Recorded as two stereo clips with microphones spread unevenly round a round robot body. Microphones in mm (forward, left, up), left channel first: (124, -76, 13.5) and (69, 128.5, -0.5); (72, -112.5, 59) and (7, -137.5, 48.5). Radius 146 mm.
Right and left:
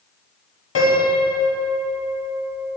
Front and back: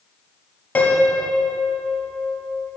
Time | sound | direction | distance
0.8 | a piano | 50° right | 1.4 m